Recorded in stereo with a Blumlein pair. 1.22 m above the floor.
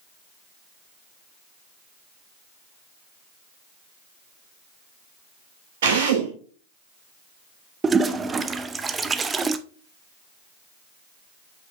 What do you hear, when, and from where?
5.8 s a drill: 60° right, 3 m
7.8 s a toilet flushing: 15° right, 0.6 m